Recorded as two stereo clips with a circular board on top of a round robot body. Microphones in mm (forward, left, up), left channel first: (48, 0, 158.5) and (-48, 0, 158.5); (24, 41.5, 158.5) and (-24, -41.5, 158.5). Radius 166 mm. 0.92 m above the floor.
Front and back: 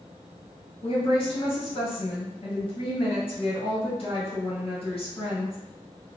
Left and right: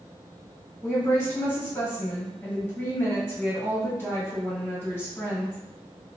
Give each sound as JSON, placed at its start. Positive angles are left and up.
{"t": 0.8, "sound": "a woman speaking", "azimuth_deg": -10, "distance_m": 1.8}